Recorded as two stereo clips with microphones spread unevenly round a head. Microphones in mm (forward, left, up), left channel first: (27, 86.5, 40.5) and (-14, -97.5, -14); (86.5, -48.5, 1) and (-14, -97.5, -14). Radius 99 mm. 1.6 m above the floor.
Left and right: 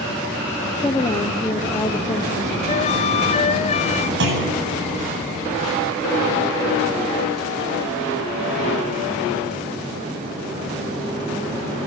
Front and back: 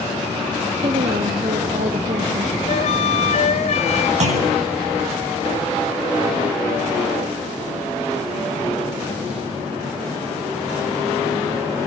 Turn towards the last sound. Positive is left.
turn(degrees=-140)